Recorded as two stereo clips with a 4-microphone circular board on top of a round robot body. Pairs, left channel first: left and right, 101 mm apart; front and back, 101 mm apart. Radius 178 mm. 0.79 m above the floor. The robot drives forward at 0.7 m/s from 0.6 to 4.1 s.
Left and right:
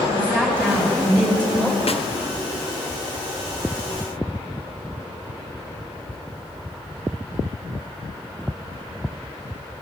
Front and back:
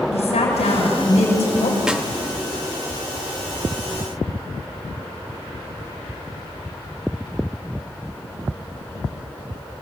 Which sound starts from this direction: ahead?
A woman speaking, at 0.1 s.